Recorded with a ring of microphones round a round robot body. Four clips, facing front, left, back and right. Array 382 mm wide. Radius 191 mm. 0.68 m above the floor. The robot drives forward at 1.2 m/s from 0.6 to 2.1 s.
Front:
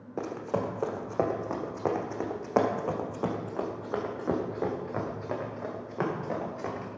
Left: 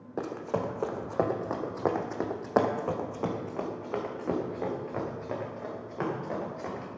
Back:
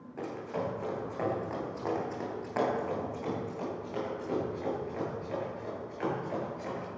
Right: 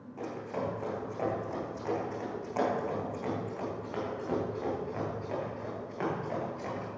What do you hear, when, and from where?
0.2 s running footsteps: 50° left, 1.6 m; by 6.9 s 20° left, 4.5 m